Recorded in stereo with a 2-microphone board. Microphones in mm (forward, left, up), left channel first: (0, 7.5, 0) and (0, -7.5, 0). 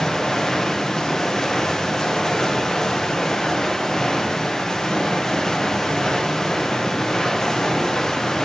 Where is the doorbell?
I don't hear a doorbell.